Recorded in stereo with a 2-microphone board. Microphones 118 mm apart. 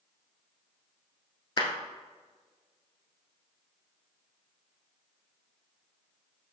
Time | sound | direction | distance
1.6 | a clap | 35° left (ahead or behind) | 1.4 m